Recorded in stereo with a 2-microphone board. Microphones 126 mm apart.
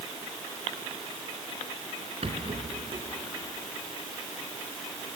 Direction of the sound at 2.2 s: 55° right (ahead or behind).